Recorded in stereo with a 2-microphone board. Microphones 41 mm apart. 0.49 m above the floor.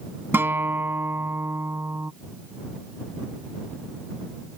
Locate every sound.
0.3 s a guitar: 75° right (ahead or behind)